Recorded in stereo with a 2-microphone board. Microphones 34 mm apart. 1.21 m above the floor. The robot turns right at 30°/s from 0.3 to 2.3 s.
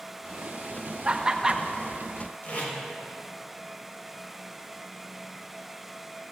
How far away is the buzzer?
I don't hear a buzzer.